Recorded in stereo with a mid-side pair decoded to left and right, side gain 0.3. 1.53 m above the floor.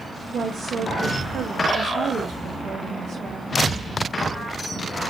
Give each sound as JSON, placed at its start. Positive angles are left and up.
{"t": 0.3, "sound": "a woman speaking", "azimuth_deg": -70, "distance_m": 0.6}